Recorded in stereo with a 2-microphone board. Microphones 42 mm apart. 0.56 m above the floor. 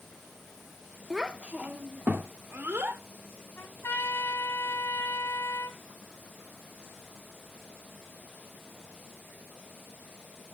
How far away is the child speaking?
About 0.7 m.